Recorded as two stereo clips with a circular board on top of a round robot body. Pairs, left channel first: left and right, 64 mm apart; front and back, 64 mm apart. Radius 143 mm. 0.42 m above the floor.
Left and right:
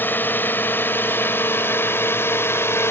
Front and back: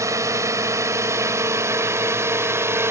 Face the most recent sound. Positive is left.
turn(degrees=135)